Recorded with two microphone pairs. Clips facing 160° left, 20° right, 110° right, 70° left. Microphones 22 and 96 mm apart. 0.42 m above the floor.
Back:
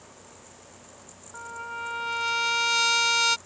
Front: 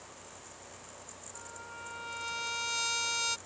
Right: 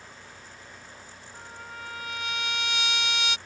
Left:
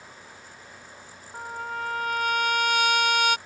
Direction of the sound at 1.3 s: 105° left.